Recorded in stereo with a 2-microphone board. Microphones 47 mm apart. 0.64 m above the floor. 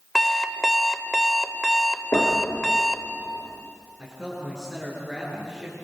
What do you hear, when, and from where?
0.1 s an alarm clock: 5° left (ahead or behind), 1.2 m
2.1 s knocking: 80° left, 9 m
4.0 s a man speaking: 20° right (ahead or behind), 8 m